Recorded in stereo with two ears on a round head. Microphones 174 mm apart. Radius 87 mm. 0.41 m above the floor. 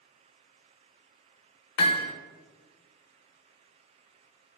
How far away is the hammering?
About 0.6 m.